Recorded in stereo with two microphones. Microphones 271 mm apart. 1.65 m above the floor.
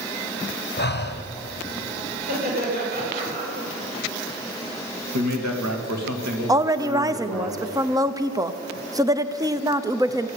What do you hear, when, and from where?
0.8 s breathing: 40° left (ahead or behind), 0.9 m
2.2 s laughter: 35° right (ahead or behind), 8 m
5.1 s a man speaking: 85° right, 2 m
6.5 s a woman speaking: 15° right (ahead or behind), 0.7 m